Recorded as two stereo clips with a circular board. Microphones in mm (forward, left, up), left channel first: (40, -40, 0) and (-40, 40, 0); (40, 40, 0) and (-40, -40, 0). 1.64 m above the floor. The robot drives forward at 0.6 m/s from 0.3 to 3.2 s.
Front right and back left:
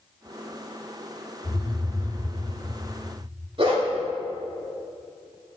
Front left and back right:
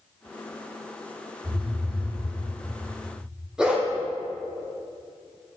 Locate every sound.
1.4 s a phone buzzing: 90° right, 1.4 m; by 2.2 s 110° right, 1.5 m
3.6 s a dog barking: 145° left, 2.0 m